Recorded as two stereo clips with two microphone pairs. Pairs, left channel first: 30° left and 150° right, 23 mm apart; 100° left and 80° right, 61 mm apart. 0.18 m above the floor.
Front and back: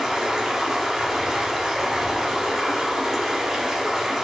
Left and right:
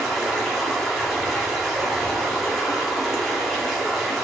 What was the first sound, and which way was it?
Running water, 175° left.